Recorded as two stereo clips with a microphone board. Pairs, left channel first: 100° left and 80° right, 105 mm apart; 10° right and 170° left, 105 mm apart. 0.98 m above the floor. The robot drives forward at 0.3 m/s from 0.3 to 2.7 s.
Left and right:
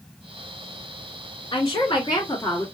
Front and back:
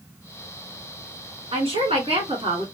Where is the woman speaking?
145° left, 1.3 m; by 2.6 s 150° left, 1.6 m.